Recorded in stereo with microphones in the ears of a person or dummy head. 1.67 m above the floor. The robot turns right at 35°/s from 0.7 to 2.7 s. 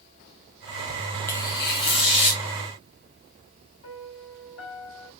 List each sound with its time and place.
1.3 s tearing paper: 40° left, 1.1 m; by 2.4 s 80° left, 1.1 m
3.8 s a piano: 60° left (ahead or behind), 3 m